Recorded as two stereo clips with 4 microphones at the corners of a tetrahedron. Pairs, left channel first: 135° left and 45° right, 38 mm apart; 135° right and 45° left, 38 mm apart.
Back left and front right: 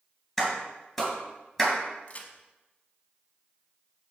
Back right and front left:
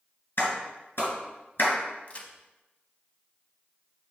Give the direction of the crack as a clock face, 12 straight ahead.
6 o'clock.